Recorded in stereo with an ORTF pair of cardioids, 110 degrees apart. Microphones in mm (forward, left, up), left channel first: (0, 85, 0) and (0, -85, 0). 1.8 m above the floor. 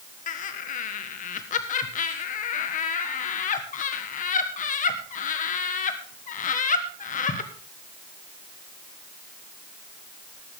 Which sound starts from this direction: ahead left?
Laughter, at 0.3 s.